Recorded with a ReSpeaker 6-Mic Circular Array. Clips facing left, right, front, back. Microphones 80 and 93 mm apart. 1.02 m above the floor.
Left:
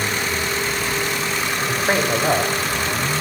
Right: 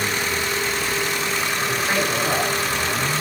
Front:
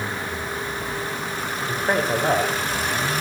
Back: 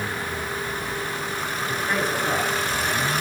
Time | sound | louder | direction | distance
1.7 | a man speaking | left 4 dB, front 4 dB | 35° left | 4.5 m